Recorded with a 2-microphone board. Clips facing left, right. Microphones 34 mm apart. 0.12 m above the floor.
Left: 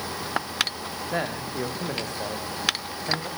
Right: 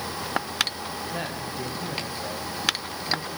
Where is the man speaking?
75° left (ahead or behind), 7.5 m.